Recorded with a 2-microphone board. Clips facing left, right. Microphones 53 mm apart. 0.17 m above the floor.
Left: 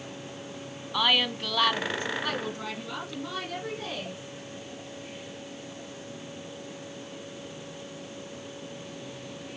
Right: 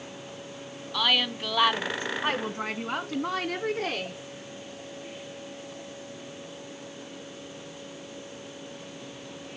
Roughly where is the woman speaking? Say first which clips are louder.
Left 1 dB; centre.